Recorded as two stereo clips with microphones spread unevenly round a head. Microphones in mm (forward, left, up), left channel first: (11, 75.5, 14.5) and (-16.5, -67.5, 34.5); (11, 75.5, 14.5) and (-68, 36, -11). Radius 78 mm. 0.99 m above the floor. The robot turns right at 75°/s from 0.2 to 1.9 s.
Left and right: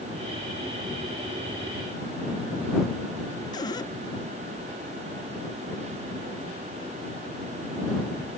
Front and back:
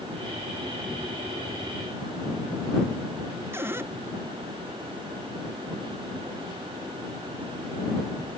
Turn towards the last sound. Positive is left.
turn(degrees=145)